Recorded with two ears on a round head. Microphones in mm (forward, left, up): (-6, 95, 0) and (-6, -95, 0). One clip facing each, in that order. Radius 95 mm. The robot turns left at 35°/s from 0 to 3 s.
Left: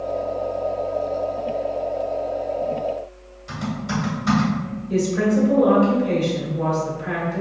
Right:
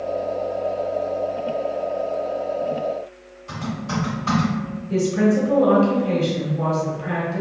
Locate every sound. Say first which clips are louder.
3.5 s typing on a keyboard: left 1 dB; 25° left (ahead or behind), 1.3 m
4.9 s a woman speaking: right 1 dB; 20° left (ahead or behind), 1.0 m